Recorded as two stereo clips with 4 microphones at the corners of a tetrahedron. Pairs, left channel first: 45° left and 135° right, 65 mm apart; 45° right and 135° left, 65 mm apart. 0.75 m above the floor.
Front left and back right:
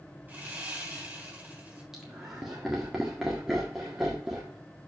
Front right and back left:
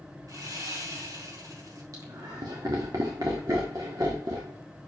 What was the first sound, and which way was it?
Sawing, 160° left.